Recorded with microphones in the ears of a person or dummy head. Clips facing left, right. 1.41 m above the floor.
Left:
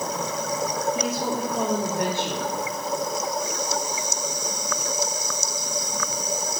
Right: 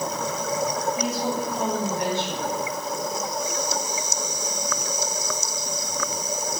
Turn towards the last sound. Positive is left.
turn(degrees=55)  # may be behind; listen again after turning